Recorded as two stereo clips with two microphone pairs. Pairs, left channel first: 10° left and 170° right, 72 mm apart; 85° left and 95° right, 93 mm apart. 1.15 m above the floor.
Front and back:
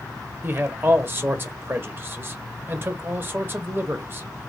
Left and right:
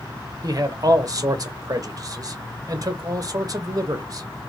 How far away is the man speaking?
About 0.9 m.